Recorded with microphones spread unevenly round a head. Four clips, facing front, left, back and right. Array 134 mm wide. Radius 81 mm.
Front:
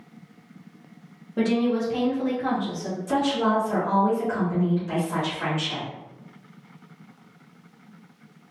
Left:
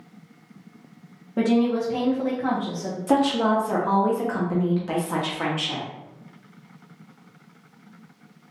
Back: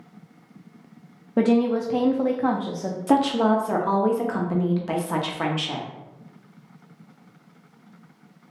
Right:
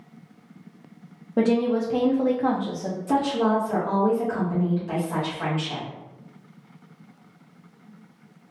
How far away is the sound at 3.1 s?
About 0.8 m.